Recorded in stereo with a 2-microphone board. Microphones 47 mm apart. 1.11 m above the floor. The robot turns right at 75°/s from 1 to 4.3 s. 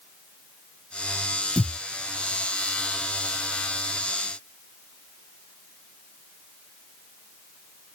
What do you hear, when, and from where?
1.6 s a thud: 30° right (ahead or behind), 2.5 m; by 1.8 s 10° right (ahead or behind), 2.5 m